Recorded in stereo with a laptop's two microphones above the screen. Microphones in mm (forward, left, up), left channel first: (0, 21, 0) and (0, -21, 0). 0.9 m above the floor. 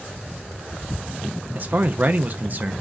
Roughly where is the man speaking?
Right.